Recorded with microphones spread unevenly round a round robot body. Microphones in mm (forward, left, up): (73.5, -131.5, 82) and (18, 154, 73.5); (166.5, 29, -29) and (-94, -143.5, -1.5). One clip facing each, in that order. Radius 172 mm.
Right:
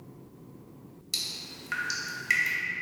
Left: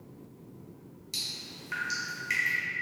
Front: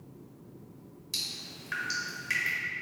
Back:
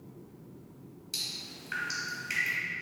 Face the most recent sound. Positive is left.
turn(degrees=-30)